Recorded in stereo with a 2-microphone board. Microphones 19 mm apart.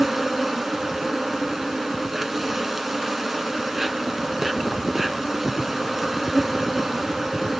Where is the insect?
20° right (ahead or behind), 1.5 m.